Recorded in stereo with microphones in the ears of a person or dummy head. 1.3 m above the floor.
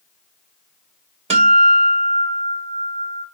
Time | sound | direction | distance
1.3 | a guitar | 40° right (ahead or behind) | 2 m